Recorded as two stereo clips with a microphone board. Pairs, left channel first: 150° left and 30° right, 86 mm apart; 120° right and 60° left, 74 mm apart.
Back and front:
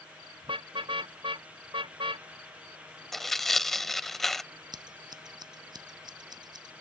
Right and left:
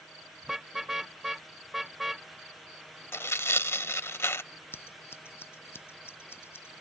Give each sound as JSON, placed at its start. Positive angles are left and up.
{"t": 0.4, "sound": "a car horn", "azimuth_deg": -25}
{"t": 3.1, "sound": "tearing paper", "azimuth_deg": -125}
{"t": 4.7, "sound": "scissors", "azimuth_deg": -65}